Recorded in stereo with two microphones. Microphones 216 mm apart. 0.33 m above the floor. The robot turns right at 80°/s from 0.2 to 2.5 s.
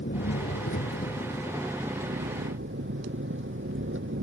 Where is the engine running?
60° left; by 4.2 s 115° right.